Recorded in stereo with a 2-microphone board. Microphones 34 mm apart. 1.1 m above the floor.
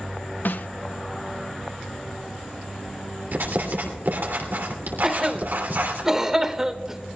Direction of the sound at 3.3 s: 80° right.